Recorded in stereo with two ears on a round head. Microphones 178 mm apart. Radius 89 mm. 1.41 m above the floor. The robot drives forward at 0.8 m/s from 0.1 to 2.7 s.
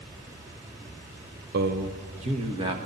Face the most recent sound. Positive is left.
turn(degrees=-25)  # may be behind; listen again after turning